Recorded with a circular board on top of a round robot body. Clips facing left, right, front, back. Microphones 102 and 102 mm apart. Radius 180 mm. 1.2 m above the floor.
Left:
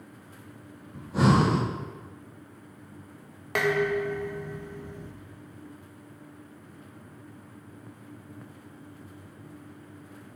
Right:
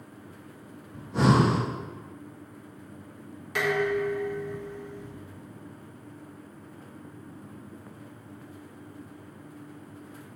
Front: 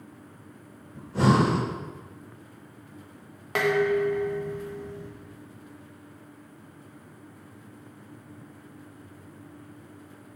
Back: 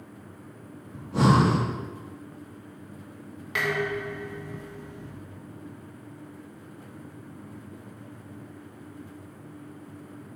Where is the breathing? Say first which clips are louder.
Even, back 1 dB; 170° left, 3 m.